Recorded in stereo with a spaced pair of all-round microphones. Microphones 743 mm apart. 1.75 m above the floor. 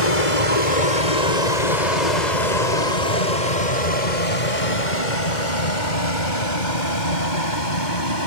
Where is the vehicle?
50° left (ahead or behind); by 8.3 s 85° left.